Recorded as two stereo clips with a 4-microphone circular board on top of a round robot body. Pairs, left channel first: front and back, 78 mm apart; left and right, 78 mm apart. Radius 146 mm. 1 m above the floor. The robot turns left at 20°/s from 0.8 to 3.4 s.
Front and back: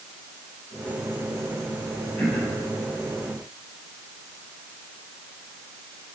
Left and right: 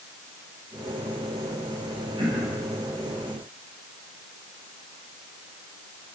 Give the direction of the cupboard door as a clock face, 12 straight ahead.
No cupboard door in this recording.